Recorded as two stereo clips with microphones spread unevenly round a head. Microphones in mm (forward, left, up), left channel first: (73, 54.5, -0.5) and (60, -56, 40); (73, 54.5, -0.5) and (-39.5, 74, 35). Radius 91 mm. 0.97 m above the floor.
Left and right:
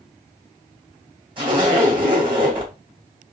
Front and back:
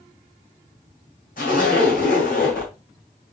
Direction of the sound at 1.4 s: 55° right.